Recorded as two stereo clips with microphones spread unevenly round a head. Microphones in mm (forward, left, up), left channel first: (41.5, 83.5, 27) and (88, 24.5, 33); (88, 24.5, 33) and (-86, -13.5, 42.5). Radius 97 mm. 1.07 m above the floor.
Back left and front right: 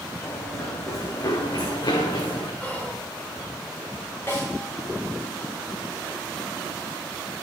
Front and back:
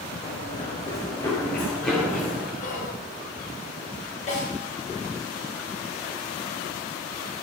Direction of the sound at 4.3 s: 65° left.